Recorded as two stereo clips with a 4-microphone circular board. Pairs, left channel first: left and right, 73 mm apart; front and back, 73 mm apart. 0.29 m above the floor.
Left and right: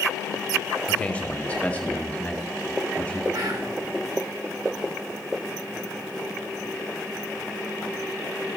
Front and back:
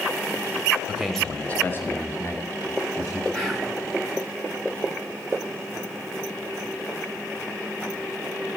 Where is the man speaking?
125° left, 0.9 m; by 3.2 s 20° left, 2.5 m.